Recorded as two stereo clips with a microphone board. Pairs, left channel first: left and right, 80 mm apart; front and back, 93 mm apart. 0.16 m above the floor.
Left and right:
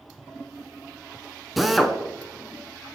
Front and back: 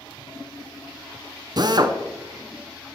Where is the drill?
Straight behind, 0.7 m.